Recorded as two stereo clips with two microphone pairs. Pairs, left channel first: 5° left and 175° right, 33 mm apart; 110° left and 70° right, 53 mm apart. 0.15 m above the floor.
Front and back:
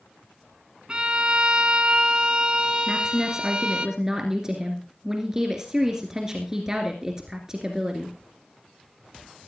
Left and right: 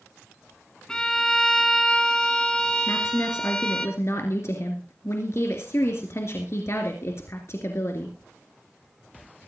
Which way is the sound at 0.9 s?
175° left.